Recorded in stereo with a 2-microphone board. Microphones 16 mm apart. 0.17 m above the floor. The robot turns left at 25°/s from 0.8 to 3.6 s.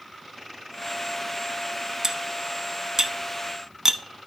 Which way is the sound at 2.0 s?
40° right (ahead or behind).